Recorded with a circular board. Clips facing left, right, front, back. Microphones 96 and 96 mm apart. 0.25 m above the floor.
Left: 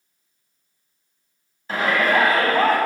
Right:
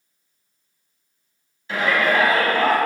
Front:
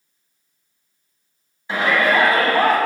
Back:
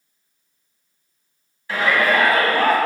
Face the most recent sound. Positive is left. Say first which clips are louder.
# even, front 1 dB
turn(degrees=60)